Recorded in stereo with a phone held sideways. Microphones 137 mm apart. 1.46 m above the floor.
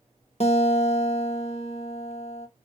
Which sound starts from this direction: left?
A guitar, at 0.4 s.